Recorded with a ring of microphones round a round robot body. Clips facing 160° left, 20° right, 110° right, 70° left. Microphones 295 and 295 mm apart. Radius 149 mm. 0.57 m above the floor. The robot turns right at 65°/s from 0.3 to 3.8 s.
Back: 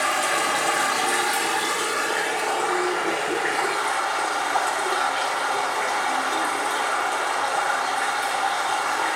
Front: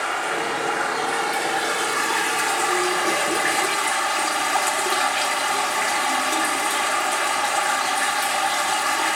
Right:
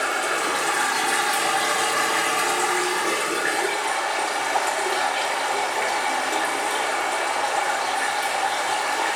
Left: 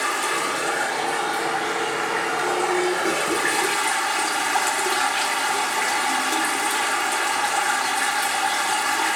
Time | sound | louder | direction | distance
0.0 | running water | even, right 1 dB | 145° left | 1.3 m